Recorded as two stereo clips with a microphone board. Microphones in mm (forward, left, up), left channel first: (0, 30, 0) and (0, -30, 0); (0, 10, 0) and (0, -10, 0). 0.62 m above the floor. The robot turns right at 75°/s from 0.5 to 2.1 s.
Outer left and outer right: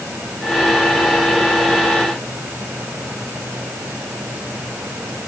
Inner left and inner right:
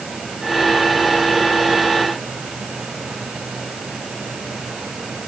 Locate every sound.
Only background noise.